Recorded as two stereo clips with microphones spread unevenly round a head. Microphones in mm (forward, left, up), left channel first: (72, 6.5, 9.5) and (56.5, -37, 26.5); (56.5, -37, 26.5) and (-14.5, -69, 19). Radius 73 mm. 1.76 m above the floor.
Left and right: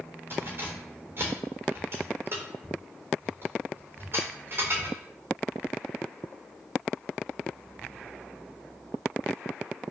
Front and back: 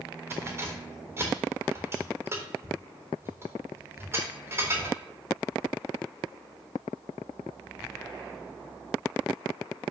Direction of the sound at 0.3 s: 100° right.